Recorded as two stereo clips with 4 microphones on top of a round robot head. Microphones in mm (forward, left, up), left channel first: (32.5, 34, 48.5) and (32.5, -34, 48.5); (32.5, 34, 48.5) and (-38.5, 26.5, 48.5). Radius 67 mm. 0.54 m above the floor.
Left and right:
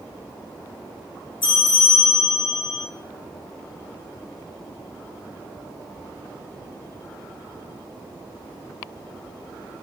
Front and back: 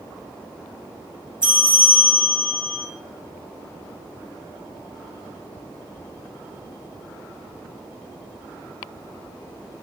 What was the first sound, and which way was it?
A bell, 110° left.